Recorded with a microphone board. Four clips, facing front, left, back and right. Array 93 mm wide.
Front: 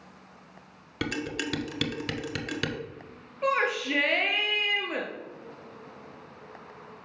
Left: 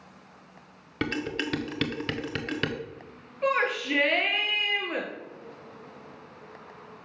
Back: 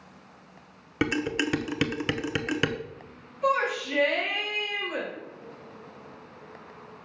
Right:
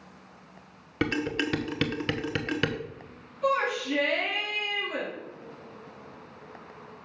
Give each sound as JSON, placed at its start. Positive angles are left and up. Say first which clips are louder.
{"t": 1.0, "sound": "dishes clattering", "louder": "right 2 dB, back 5 dB", "azimuth_deg": -170, "distance_m": 0.7}
{"t": 3.4, "sound": "a shout", "louder": "even, back 1 dB", "azimuth_deg": 50, "distance_m": 2.0}